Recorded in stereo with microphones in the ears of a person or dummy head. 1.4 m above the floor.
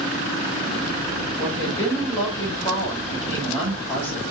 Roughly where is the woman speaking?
Centre.